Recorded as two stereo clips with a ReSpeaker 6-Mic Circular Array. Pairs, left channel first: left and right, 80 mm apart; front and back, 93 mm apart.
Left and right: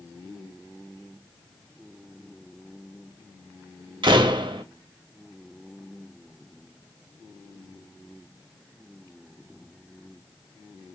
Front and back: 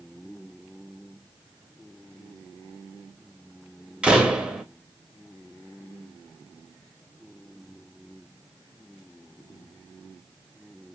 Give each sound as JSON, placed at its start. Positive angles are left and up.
{"t": 4.0, "sound": "a door slam", "azimuth_deg": -100, "distance_m": 0.6}